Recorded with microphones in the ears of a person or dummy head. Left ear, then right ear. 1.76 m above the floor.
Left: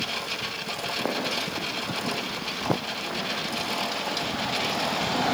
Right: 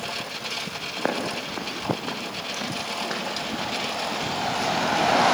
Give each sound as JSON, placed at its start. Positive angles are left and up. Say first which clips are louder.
{"t": 1.0, "sound": "footsteps", "louder": "right 2 dB", "side_deg": -65, "distance_m": 5.5}